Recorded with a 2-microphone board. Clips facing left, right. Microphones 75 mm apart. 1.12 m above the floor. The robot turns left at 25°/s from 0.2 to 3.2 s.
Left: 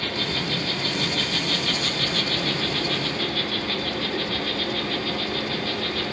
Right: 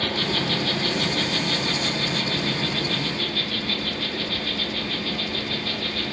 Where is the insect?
115° right, 3 m; by 6.1 s 170° left, 3 m.